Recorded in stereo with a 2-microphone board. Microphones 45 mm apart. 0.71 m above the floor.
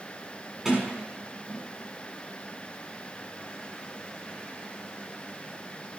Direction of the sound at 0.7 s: 10° right (ahead or behind).